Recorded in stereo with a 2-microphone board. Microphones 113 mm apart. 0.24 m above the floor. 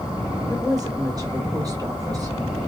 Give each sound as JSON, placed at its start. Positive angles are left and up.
{"t": 0.5, "sound": "a woman speaking", "side_deg": -35, "distance_m": 1.6}